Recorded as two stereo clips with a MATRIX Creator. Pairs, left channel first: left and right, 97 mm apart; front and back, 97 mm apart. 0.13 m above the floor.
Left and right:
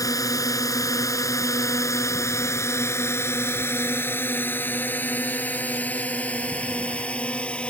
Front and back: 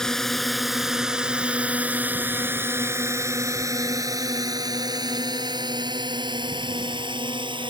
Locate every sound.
0.0 s a drone: 80° left; by 7.7 s 165° left